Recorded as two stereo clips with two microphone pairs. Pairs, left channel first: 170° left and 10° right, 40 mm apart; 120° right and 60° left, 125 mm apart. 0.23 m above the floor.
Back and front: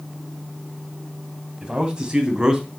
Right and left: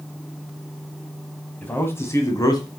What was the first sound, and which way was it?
A man speaking, 50° right.